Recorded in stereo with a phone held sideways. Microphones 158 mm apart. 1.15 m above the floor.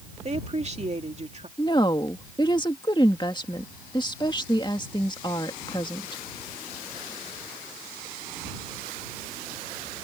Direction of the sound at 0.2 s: 45° right (ahead or behind).